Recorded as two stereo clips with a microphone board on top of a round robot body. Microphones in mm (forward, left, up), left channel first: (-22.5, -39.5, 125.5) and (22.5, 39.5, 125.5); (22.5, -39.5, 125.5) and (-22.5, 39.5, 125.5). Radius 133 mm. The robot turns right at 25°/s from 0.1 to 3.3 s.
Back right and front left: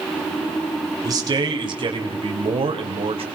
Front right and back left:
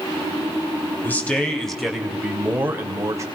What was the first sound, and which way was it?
A man speaking, 10° left.